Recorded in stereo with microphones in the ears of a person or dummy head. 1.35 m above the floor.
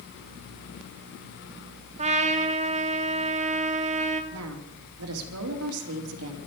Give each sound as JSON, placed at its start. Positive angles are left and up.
{"t": 2.0, "sound": "a trumpet", "side_deg": -30, "distance_m": 1.1}
{"t": 4.3, "sound": "a woman speaking", "side_deg": -85, "distance_m": 2.5}